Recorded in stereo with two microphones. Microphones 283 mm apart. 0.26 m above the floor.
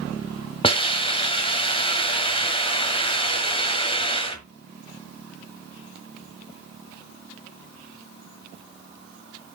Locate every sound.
0.6 s a hiss: 20° left (ahead or behind), 1.5 m